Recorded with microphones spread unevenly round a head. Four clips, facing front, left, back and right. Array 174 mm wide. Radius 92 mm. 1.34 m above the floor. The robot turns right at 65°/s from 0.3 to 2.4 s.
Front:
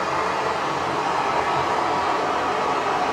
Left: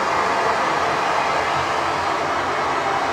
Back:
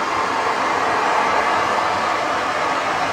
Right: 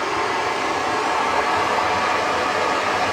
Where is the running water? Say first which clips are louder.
Left 3 dB, back 3 dB; 120° left, 2 m; by 3.1 s 105° right, 2 m.